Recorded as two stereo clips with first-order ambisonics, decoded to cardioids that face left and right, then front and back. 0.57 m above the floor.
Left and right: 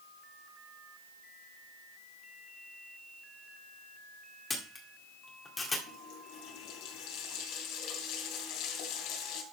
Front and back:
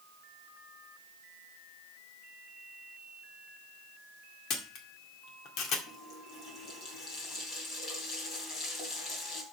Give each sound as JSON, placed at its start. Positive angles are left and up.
{"t": 4.5, "sound": "a camera shutter", "azimuth_deg": 15, "distance_m": 1.9}
{"t": 5.9, "sound": "a running tap", "azimuth_deg": 65, "distance_m": 3.0}